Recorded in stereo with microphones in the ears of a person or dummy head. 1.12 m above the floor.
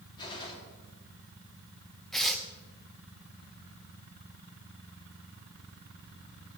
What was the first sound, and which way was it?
A gunshot, 25° left (ahead or behind).